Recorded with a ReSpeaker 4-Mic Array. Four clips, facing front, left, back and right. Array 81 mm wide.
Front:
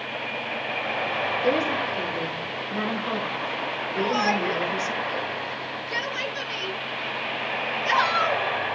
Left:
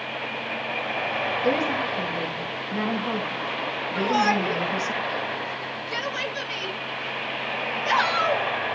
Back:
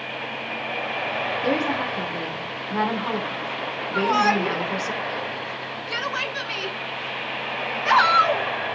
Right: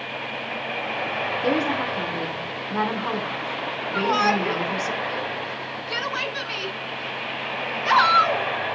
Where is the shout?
145° right, 4 m.